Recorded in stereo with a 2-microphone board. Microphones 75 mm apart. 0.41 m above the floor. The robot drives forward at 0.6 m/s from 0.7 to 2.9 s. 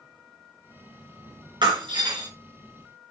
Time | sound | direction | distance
1.6 | breaking glass | 80° right | 3.5 m